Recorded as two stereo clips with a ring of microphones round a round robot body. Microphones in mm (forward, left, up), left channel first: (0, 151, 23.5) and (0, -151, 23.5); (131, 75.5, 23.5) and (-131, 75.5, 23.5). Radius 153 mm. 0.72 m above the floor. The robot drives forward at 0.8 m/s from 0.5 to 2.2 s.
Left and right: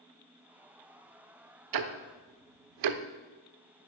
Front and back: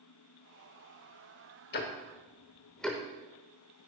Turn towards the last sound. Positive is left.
turn(degrees=-90)